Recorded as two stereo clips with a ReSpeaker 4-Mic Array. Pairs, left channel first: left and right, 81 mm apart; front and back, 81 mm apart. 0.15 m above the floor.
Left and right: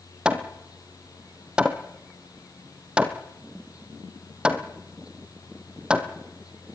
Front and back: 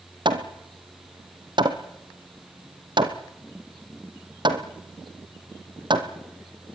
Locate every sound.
0.2 s hammering: 170° right, 2 m